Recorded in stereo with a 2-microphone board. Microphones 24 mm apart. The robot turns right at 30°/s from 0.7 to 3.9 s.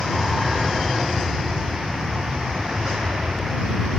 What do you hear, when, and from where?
0.0 s an aircraft: straight behind; by 4.0 s 80° right